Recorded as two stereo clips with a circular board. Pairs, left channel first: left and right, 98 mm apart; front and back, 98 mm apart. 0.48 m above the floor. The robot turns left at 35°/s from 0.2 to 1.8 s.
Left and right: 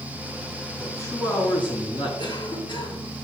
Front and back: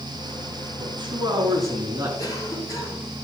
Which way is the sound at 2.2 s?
55° left.